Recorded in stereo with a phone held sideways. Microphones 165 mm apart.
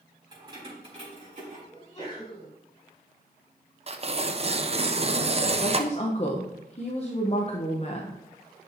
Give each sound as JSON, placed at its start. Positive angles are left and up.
{"t": 0.3, "sound": "keys jangling", "side_deg": -30, "distance_m": 3.0}
{"t": 1.7, "sound": "a sneeze", "side_deg": 35, "distance_m": 3.5}
{"t": 3.9, "sound": "tearing paper", "side_deg": -40, "distance_m": 0.5}
{"t": 5.6, "sound": "a woman speaking", "side_deg": 40, "distance_m": 0.8}